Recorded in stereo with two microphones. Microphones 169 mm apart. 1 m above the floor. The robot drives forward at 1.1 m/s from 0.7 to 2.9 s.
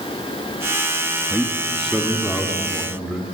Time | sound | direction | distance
1.3 | a man speaking | centre (ahead or behind) | 1.6 m